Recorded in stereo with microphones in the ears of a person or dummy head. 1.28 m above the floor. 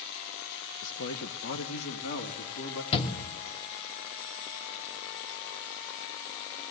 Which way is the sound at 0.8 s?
80° left.